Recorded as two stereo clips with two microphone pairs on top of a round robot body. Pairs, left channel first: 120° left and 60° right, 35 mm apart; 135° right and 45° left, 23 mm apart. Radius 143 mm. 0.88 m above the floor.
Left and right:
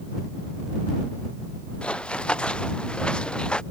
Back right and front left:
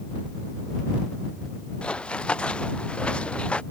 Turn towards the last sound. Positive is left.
turn(degrees=180)